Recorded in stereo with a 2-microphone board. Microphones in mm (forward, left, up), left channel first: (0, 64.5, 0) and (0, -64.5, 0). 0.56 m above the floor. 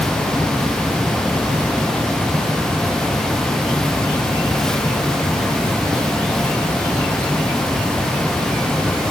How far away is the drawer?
I don't hear a drawer.